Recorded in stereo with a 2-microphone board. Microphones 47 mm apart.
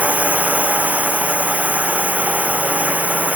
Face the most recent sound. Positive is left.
turn(degrees=-30)  # may be behind; listen again after turning